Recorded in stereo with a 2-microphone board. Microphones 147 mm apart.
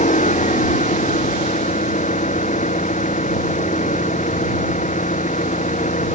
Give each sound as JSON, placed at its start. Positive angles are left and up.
{"t": 0.0, "sound": "an engine running", "side_deg": 60}